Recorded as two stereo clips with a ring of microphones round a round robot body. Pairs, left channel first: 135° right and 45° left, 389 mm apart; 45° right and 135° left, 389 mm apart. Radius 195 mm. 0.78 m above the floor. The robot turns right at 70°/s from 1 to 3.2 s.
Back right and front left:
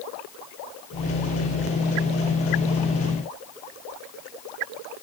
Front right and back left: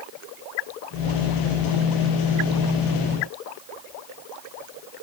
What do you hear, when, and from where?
Only background noise.